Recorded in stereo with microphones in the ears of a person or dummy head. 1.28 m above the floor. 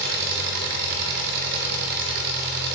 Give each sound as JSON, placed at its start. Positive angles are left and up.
{"t": 0.0, "sound": "an engine running", "side_deg": -55, "distance_m": 0.8}